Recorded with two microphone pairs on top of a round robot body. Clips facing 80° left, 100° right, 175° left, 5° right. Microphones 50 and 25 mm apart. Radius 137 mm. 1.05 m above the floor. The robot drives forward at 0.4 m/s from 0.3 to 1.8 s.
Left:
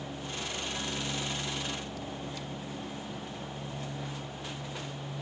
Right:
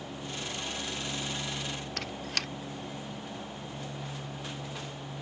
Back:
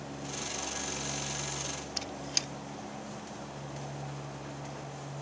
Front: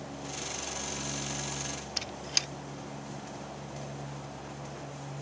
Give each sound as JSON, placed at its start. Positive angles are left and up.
{"t": 2.0, "sound": "a squeak", "azimuth_deg": -80}